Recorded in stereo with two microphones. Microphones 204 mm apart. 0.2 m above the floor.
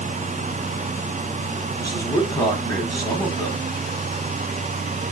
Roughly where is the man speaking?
Centre.